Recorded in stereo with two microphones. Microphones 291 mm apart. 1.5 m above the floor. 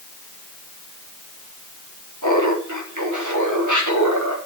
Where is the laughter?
90° right, 3.5 m.